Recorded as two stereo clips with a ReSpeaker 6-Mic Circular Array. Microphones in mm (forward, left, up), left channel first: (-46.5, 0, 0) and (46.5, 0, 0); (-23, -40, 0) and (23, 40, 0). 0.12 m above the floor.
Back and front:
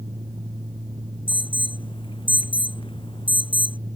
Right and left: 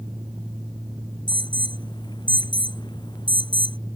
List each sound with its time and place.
1.3 s an alarm: 155° right